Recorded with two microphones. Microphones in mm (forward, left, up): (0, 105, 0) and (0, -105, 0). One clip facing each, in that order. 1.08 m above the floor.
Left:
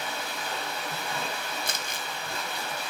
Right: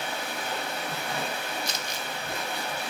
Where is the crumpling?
55° left (ahead or behind), 0.6 m.